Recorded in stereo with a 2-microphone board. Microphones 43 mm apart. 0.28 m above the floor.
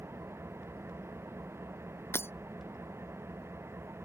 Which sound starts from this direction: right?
An engine running, at 0.0 s.